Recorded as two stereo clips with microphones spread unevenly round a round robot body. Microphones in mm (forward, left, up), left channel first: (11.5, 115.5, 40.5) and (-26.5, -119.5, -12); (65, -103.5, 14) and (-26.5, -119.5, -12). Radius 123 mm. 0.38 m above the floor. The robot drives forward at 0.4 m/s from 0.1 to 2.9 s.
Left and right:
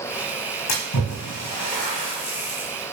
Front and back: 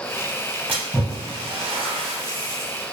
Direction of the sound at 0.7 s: 105° left.